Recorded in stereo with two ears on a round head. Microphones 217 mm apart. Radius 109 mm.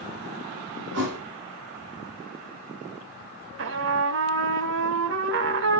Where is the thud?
50° right (ahead or behind), 4 m.